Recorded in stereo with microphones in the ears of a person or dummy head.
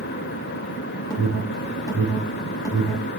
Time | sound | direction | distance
1.1 | an alarm | 20° left (ahead or behind) | 6 m